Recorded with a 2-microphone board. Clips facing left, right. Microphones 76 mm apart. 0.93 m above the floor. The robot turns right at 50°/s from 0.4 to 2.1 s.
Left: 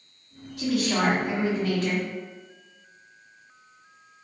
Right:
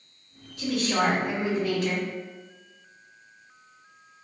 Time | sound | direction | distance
0.6 | a woman speaking | 75° left | 1.4 m